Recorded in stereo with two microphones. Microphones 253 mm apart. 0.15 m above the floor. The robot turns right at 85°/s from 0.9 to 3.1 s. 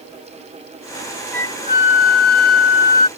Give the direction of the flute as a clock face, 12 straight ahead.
12 o'clock.